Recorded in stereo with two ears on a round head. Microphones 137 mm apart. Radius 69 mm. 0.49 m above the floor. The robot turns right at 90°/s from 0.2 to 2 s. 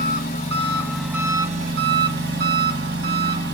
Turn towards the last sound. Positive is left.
turn(degrees=-85)